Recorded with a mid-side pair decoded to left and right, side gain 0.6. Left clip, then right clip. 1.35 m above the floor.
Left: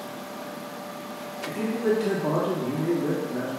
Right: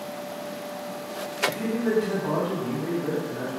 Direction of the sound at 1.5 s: 45° left.